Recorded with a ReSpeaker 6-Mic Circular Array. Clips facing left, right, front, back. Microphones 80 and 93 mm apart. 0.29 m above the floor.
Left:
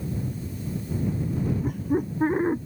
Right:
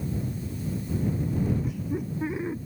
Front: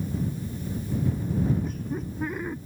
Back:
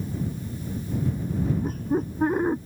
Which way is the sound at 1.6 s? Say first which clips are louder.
Left 5 dB, back 6 dB; 130° left.